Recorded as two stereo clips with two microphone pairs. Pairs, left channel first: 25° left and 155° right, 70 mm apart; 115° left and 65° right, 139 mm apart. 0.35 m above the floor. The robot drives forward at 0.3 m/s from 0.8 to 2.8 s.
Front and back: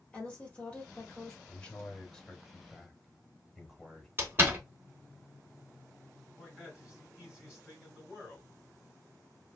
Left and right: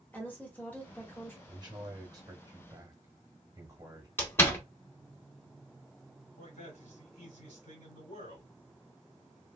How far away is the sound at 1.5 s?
About 1.1 m.